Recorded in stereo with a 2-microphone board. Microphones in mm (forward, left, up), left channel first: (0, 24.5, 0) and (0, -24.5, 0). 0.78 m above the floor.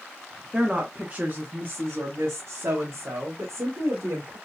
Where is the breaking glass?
I don't hear breaking glass.